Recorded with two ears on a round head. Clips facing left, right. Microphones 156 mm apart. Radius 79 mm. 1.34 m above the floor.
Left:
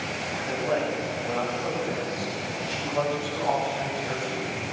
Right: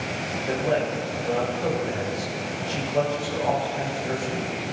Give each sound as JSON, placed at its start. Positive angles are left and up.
{"t": 0.5, "sound": "a man speaking", "side_deg": -50, "distance_m": 7.5}